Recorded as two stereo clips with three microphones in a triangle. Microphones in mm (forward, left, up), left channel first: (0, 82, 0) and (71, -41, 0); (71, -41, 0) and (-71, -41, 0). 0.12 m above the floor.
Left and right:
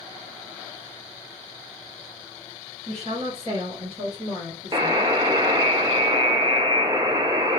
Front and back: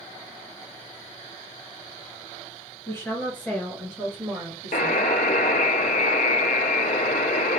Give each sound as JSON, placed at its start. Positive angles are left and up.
{"t": 2.9, "sound": "a woman speaking", "azimuth_deg": -70, "distance_m": 1.9}
{"t": 4.7, "sound": "a buzzer", "azimuth_deg": 0, "distance_m": 0.5}